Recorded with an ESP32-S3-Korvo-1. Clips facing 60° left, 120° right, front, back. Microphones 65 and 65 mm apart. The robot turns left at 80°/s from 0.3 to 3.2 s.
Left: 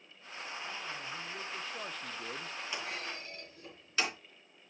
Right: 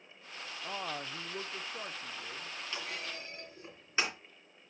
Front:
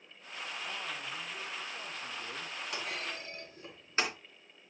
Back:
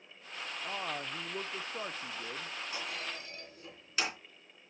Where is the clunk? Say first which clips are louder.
Even, front 3 dB; 15° right, 3 m; by 4.2 s 55° right, 3 m.